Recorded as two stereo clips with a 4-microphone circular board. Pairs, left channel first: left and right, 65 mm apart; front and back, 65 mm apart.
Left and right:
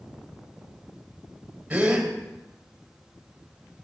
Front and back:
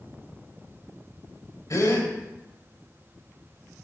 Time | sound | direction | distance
1.7 | a gasp | 20° right | 3 m